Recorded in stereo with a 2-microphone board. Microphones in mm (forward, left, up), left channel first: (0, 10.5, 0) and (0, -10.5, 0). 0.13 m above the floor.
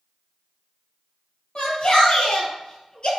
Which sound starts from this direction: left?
A shout, at 1.6 s.